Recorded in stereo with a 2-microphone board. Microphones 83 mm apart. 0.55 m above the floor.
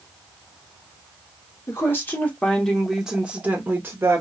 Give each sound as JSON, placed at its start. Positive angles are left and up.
{"t": 1.7, "sound": "a woman speaking", "side_deg": 35, "distance_m": 1.0}